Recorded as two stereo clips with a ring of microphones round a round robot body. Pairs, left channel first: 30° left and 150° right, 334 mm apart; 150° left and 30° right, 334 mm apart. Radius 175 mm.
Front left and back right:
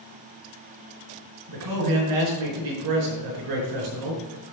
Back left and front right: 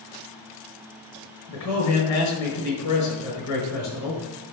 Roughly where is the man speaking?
Behind.